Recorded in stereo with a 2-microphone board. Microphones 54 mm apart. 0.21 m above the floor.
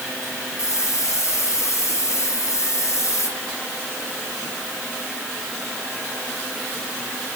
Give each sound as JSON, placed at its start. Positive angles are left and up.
{"t": 0.6, "sound": "a hiss", "side_deg": 60, "distance_m": 9.0}